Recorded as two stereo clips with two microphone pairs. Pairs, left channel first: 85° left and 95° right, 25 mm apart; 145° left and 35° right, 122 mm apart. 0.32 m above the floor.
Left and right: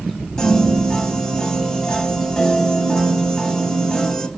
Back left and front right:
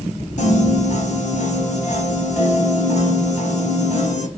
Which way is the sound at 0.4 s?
150° left.